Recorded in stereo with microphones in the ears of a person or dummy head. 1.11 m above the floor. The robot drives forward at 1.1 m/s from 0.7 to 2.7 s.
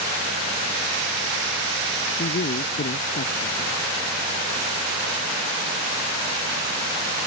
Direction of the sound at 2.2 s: 50° left (ahead or behind).